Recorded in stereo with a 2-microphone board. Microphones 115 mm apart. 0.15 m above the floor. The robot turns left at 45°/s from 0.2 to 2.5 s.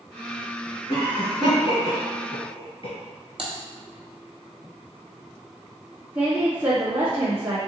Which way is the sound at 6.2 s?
20° right (ahead or behind).